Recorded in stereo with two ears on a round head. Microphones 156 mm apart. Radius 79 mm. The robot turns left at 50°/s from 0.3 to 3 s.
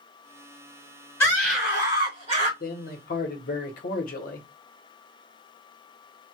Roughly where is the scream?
Ahead.